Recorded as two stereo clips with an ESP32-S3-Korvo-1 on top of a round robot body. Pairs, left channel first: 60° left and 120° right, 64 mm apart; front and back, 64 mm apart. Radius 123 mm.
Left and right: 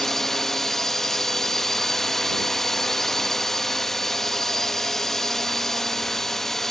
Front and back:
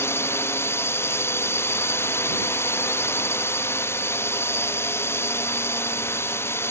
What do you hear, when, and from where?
0.0 s a drone: 20° right